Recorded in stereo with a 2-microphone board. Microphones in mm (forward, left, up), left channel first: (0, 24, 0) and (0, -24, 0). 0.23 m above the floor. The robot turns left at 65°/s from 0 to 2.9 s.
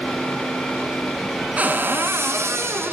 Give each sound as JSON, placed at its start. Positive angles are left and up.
{"t": 1.6, "sound": "a cupboard door", "azimuth_deg": -30, "distance_m": 1.0}